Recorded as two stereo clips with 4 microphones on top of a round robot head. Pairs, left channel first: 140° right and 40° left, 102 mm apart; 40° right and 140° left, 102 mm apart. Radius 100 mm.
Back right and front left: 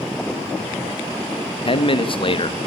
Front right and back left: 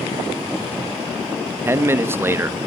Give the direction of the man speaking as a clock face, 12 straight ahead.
5 o'clock.